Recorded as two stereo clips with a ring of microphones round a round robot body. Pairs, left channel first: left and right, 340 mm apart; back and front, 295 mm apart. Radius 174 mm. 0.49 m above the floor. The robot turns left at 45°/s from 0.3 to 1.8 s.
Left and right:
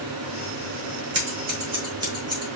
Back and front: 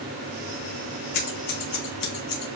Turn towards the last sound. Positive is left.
turn(degrees=-170)